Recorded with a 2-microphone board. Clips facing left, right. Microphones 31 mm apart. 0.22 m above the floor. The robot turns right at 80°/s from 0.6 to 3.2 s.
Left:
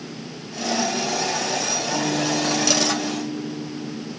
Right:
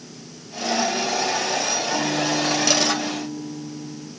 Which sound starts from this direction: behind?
A guitar, at 1.9 s.